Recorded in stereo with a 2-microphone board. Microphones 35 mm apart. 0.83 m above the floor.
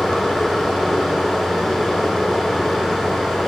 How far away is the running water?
About 7 m.